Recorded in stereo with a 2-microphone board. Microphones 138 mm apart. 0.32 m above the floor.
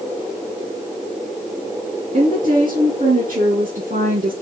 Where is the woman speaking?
70° right (ahead or behind), 3.5 m; by 4.3 s 80° right, 4.5 m.